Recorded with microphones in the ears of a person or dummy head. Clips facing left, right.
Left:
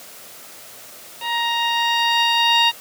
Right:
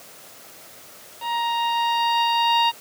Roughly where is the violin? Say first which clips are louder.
Even; left.